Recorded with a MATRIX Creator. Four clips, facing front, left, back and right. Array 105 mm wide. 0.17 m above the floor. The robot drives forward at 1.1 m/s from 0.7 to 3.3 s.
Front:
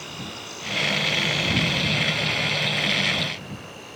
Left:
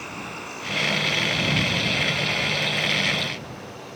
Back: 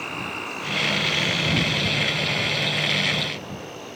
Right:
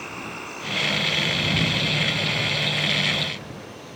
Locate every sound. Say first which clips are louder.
0.0 s an insect: even, back 5 dB; 175° right, 1.3 m; by 4.0 s straight behind, 4 m